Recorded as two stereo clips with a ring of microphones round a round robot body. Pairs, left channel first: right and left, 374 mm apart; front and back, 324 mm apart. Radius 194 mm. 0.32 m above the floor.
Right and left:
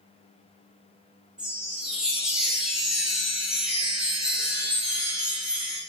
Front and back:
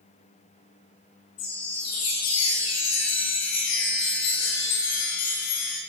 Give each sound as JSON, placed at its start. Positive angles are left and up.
{"t": 1.4, "sound": "a chime", "azimuth_deg": 0, "distance_m": 4.0}